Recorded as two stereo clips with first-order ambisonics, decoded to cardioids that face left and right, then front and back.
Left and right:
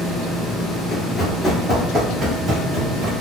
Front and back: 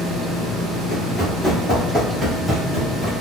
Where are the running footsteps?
65° left, 1.7 m; by 3.1 s 100° right, 2.5 m.